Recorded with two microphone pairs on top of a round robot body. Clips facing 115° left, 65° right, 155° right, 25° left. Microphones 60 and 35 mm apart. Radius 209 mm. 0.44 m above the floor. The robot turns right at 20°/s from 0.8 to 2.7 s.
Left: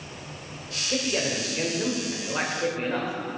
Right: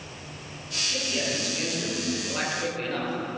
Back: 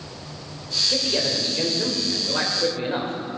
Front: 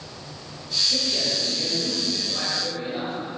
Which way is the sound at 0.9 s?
150° left.